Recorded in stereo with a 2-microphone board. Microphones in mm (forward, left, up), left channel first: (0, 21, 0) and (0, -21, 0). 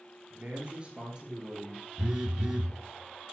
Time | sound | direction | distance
0.3 | a man speaking | 40° right (ahead or behind) | 2.5 m
2.0 | a phone buzzing | 20° right (ahead or behind) | 1.1 m